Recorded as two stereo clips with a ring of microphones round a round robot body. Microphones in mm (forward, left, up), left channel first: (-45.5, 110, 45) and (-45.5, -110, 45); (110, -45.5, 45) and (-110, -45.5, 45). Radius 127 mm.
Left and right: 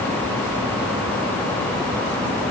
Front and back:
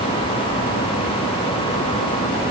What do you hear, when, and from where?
Only background noise.